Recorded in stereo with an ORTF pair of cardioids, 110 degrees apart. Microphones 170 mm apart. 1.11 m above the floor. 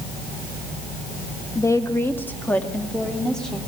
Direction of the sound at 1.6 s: 20° left.